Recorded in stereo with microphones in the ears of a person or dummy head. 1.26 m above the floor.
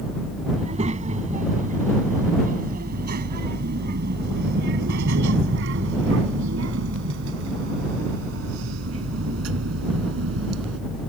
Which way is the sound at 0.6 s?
30° right (ahead or behind).